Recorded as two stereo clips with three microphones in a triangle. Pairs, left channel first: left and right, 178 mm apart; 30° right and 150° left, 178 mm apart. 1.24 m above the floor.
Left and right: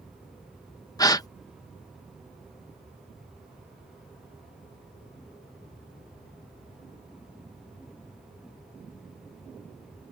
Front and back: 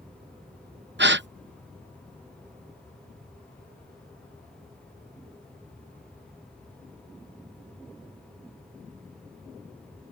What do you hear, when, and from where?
1.0 s a gasp: 160° left